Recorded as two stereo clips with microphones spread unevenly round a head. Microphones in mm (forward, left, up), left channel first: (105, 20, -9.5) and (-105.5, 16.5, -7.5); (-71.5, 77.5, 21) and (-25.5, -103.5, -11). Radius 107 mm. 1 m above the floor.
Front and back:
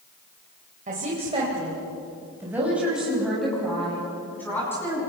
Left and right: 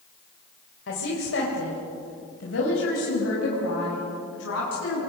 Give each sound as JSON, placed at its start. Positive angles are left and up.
{"t": 0.9, "sound": "a woman speaking", "azimuth_deg": 125, "distance_m": 4.0}